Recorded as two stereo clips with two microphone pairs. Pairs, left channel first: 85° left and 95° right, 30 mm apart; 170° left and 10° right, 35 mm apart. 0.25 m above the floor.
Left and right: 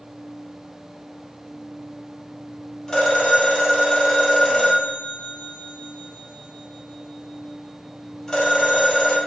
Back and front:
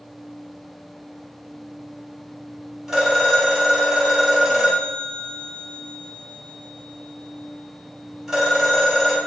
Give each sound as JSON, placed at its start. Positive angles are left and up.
{"t": 2.9, "sound": "a phone ringing", "azimuth_deg": 50, "distance_m": 0.9}